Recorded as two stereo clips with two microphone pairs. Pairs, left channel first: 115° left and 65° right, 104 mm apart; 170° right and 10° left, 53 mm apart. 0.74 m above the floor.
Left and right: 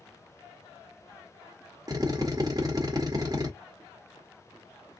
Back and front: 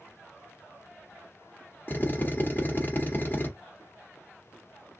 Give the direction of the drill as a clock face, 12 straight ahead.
4 o'clock.